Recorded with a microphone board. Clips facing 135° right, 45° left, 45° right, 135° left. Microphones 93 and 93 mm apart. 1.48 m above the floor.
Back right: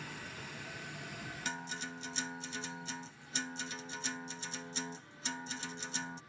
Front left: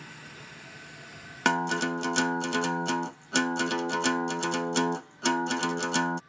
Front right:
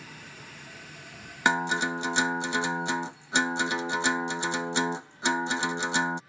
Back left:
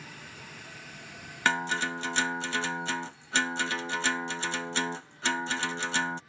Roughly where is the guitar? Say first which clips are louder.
Front left 19 dB, front right 3 dB; ahead left.